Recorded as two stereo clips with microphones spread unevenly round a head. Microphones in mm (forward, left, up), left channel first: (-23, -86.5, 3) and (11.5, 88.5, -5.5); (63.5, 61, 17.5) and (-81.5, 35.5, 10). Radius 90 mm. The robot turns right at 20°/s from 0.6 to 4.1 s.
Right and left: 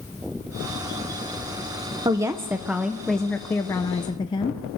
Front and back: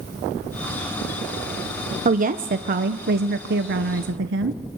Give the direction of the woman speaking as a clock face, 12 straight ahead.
7 o'clock.